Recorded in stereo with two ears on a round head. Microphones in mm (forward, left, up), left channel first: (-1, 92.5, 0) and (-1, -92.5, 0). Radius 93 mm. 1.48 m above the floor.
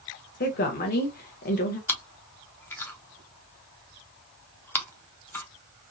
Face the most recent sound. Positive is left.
turn(degrees=10)  # may be behind; listen again after turning